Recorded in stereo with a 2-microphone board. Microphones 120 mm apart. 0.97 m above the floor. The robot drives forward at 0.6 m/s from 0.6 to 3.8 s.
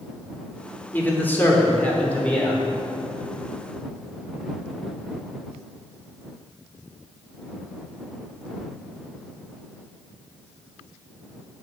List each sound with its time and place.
0.9 s a man speaking: 15° left (ahead or behind), 2.5 m; by 2.6 s 10° left (ahead or behind), 3.5 m